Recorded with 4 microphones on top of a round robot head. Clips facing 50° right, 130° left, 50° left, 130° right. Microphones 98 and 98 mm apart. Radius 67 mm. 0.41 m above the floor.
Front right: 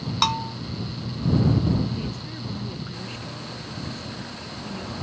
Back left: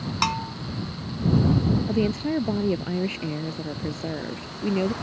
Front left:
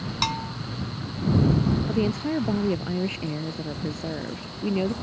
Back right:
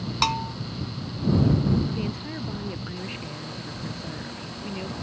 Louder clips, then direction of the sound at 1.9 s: Back left 9 dB, front left 7 dB; 100° left.